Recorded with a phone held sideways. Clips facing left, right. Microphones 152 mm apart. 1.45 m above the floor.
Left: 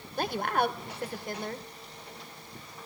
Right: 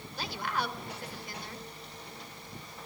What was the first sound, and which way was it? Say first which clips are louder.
A woman speaking: left 7 dB; 50° left (ahead or behind).